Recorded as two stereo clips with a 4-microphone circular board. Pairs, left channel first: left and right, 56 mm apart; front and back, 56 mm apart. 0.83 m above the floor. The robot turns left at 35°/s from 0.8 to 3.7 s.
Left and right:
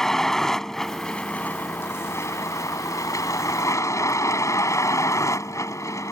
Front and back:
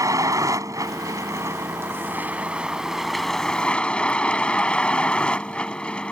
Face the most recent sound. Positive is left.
turn(degrees=70)